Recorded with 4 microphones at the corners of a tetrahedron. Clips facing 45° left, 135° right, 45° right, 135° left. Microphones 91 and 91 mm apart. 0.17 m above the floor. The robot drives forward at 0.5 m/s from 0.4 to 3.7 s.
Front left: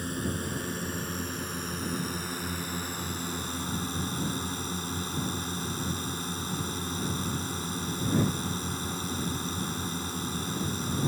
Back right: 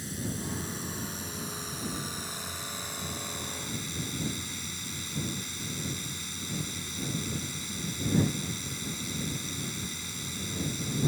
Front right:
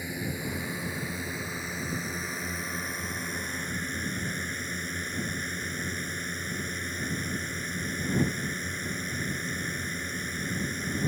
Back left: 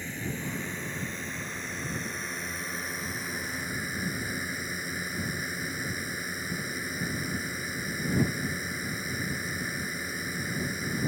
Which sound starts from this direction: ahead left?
A drone, at 0.0 s.